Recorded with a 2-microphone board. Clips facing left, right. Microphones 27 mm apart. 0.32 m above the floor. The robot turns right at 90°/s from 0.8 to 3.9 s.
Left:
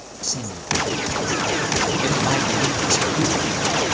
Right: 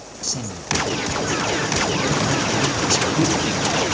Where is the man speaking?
5° right (ahead or behind), 1.7 m; by 3.9 s 60° right (ahead or behind), 1.7 m.